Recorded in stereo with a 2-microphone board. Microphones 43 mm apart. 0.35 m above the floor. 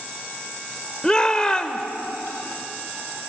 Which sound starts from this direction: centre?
A shout, at 1.0 s.